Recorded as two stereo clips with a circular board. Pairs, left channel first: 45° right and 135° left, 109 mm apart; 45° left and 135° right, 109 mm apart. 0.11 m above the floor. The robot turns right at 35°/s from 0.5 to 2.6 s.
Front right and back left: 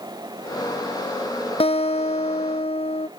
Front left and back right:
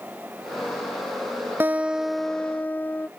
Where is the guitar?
65° right; by 3.1 s 30° right.